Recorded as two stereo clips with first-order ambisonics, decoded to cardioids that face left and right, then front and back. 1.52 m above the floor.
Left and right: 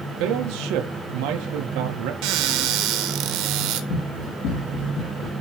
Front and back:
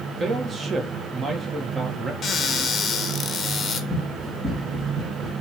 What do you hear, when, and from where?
0.2 s a man speaking: 110° right, 1.5 m
2.2 s a cupboard door: 70° right, 1.2 m
3.9 s running footsteps: 95° left, 3 m; by 5.3 s 80° left, 2.5 m